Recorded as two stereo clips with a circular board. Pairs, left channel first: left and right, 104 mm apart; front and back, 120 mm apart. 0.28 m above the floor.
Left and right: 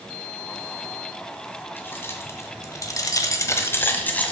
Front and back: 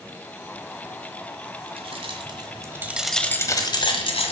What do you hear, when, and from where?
1.8 s keys jangling: 155° left, 2 m; by 4.3 s 15° left, 1.8 m